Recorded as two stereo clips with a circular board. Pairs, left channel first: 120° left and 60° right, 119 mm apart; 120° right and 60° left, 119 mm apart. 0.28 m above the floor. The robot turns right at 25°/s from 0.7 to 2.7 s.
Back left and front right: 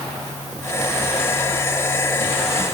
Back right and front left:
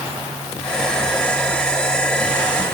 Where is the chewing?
No chewing in this recording.